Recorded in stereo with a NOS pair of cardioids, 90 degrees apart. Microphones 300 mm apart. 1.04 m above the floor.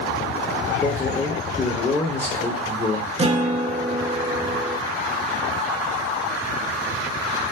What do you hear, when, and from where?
0.8 s a man speaking: 20° left, 1.1 m
3.2 s a guitar: 20° right, 0.7 m